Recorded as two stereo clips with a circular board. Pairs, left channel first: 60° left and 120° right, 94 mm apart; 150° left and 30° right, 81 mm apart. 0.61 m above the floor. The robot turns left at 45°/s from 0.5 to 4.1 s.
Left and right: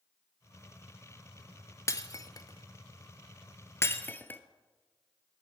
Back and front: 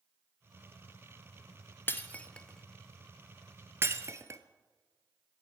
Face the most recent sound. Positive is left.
turn(degrees=0)